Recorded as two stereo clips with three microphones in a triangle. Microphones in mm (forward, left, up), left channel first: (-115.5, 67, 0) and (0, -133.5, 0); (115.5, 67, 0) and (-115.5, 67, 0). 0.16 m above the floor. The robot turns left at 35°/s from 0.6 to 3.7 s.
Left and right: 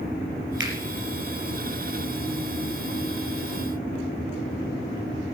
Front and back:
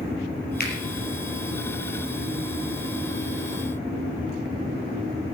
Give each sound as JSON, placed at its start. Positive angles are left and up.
{"t": 0.6, "sound": "a finger snap", "azimuth_deg": -40, "distance_m": 4.5}